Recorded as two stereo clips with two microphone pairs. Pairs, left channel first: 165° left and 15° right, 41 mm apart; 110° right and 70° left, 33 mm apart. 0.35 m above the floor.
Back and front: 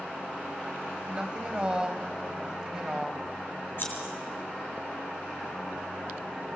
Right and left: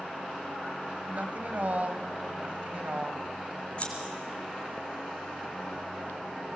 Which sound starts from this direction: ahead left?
A woman speaking, at 1.1 s.